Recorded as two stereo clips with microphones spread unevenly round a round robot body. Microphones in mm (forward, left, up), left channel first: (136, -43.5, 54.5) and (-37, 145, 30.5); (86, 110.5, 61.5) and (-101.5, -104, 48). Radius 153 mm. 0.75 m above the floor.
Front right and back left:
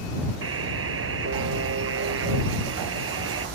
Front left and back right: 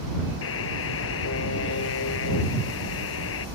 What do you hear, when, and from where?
0.4 s a buzzer: 95° left